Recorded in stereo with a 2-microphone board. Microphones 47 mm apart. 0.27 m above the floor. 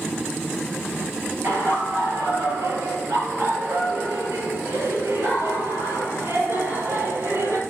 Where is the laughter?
65° right (ahead or behind), 5.5 m; by 7.6 s 75° right (ahead or behind), 7 m.